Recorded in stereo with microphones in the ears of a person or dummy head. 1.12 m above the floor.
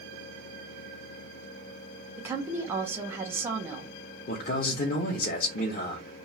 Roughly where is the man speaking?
Left.